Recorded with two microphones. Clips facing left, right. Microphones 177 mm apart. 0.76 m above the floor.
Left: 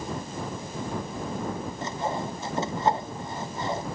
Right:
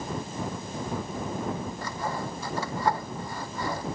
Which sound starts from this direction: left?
Sawing, at 1.8 s.